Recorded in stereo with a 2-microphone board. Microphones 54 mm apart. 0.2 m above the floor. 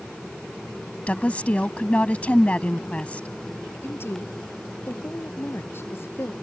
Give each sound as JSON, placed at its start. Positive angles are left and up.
{"t": 1.1, "sound": "a woman speaking", "side_deg": 25}
{"t": 3.8, "sound": "a woman speaking", "side_deg": 45}